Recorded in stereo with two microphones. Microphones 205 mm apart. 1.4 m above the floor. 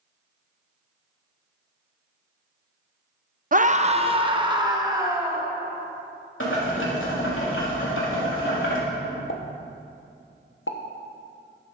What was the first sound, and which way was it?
A scream, 40° right (ahead or behind).